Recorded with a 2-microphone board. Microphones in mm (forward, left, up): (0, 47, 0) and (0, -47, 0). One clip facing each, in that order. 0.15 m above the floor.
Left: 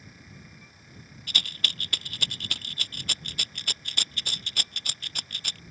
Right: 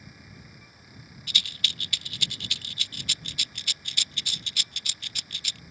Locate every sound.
1.3 s a rattle: 50° left (ahead or behind)